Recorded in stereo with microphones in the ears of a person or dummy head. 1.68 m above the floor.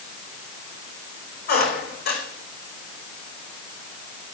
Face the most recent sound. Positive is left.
turn(degrees=55)  # may be behind; listen again after turning